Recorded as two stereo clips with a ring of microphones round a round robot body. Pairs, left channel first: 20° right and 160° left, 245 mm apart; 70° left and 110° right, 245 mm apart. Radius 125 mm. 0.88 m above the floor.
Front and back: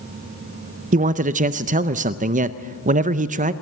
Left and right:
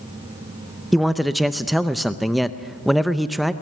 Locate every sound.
0.9 s a man speaking: 160° left, 0.6 m